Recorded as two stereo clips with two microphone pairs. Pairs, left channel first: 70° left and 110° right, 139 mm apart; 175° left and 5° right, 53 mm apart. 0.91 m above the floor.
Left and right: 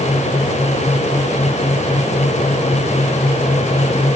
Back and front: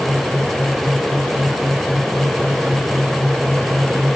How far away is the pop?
No pop in this recording.